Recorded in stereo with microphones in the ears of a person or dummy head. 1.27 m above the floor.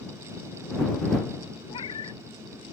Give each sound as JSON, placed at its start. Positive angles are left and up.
{"t": 1.7, "sound": "a cat meowing", "side_deg": 35}